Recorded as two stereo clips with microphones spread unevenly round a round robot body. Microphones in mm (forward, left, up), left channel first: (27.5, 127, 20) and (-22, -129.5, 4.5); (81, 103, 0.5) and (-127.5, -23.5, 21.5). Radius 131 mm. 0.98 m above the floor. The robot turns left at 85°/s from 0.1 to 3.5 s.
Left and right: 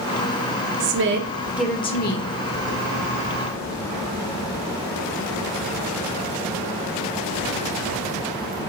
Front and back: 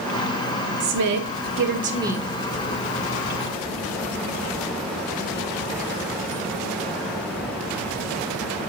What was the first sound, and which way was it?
A woman speaking, 120° right.